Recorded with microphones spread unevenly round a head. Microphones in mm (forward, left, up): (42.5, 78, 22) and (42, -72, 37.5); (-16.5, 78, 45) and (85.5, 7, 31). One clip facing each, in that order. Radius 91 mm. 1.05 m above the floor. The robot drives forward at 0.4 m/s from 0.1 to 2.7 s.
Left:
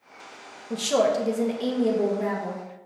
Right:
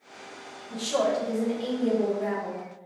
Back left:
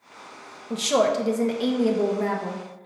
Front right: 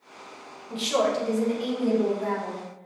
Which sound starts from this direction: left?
A woman speaking, at 0.7 s.